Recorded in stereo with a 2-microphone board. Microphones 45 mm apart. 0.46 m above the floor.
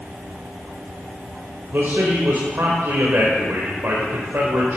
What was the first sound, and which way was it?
A man speaking, 55° right (ahead or behind).